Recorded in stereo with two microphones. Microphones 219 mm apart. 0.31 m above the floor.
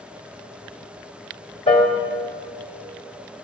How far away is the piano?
About 1.2 m.